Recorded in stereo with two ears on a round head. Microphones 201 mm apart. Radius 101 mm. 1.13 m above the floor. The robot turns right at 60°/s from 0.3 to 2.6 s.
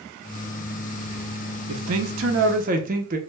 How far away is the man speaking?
About 0.5 m.